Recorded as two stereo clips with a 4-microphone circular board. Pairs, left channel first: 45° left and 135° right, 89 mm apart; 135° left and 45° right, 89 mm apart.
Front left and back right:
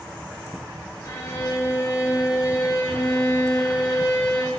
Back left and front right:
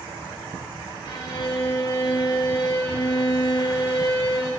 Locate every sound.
1.1 s a violin: 100° left, 6 m